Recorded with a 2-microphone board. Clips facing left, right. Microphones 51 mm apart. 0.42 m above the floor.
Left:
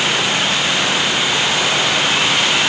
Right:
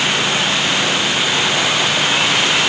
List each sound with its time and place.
Only background noise.